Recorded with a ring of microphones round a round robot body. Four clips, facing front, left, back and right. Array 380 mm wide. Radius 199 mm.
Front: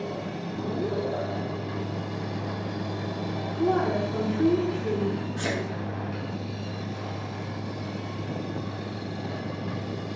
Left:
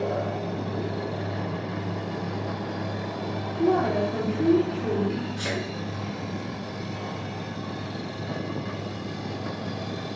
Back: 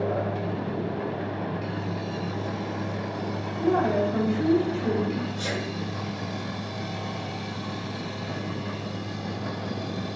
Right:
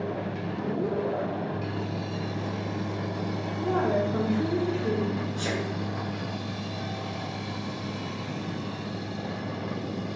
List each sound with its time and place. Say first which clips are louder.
3.6 s a woman speaking: left 3 dB, back 2 dB; 55° left, 1.7 m
5.4 s a sneeze: even, front 1 dB; 10° left, 1.2 m